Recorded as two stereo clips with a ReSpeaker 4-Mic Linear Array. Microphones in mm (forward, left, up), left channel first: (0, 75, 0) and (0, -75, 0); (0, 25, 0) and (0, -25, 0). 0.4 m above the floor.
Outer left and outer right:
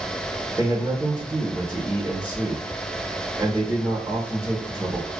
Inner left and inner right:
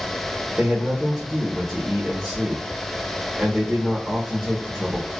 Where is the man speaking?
15° right (ahead or behind), 0.9 m.